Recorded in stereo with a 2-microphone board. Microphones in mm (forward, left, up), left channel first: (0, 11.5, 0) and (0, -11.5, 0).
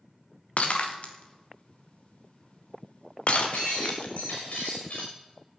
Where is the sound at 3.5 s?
80° left, 6 m.